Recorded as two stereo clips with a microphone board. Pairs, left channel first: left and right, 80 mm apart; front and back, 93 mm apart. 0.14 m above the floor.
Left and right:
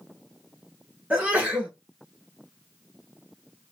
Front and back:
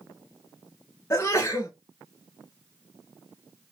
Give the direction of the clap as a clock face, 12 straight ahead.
I don't hear a clap.